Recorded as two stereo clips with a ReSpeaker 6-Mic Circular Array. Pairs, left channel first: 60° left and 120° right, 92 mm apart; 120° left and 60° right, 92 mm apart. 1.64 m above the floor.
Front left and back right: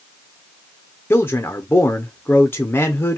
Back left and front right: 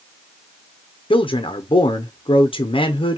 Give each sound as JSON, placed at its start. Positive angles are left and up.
{"t": 1.1, "sound": "a man speaking", "azimuth_deg": 125, "distance_m": 0.7}